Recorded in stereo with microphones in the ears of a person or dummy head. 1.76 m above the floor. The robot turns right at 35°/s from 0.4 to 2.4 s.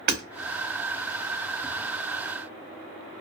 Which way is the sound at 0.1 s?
50° right (ahead or behind).